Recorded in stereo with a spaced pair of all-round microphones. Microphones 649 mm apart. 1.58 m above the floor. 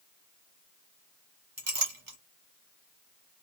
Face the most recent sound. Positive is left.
turn(degrees=-50)  # may be behind; listen again after turning